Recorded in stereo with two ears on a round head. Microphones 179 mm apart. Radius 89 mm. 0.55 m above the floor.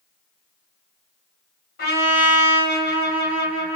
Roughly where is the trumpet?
Left.